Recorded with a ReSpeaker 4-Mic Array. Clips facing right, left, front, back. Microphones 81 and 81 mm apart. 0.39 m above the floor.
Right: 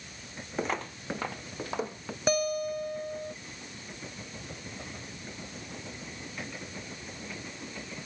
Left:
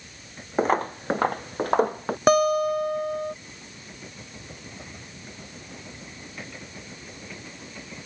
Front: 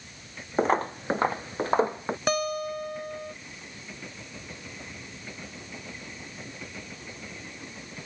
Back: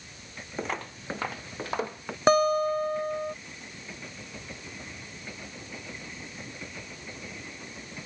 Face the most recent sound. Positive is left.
turn(degrees=120)